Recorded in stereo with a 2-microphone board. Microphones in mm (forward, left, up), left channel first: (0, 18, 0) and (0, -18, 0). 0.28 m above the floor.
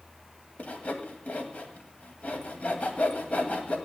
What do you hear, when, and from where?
0.6 s sawing: 45° left (ahead or behind), 1.9 m